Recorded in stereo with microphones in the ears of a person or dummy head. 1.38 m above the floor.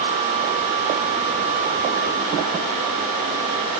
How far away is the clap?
No clap in this recording.